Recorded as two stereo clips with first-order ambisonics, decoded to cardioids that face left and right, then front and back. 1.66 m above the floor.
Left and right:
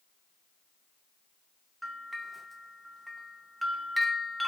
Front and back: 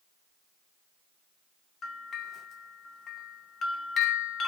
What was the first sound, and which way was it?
A bell, 5° right.